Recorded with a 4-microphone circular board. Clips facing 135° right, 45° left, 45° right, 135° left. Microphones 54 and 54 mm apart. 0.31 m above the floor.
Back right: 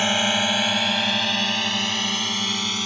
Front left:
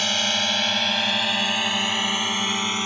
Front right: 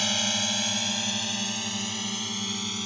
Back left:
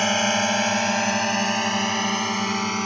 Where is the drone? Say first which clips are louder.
Back right 3 dB, back left 8 dB; 165° left; by 2.9 s 110° left.